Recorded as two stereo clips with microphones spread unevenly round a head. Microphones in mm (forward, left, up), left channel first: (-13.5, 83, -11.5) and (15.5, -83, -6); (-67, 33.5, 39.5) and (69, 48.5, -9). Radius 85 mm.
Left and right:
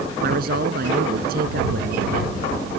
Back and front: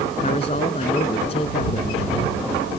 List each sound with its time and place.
0.2 s a man speaking: 120° right